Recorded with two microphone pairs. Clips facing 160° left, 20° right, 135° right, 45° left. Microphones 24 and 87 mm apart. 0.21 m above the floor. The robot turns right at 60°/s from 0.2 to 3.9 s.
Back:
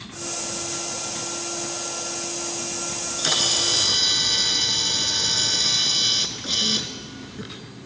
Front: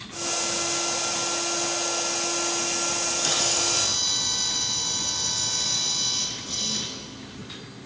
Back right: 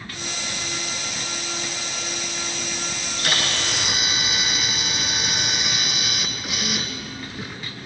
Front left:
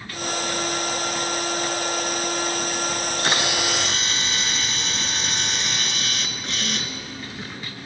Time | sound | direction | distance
2.9 | a camera shutter | 85° left | 0.6 m